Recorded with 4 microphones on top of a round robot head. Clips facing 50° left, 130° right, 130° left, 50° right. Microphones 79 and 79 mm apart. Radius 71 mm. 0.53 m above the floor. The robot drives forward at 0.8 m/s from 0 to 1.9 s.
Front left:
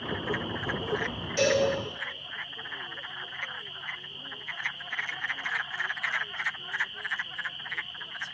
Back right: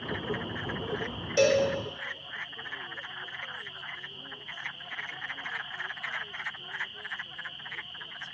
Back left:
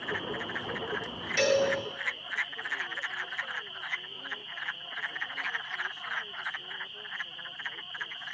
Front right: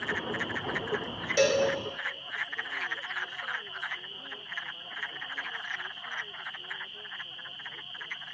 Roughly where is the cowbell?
Right.